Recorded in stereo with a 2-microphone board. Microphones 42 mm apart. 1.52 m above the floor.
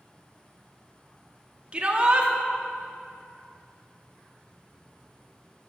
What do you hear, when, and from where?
1.7 s a shout: 25° right (ahead or behind), 0.6 m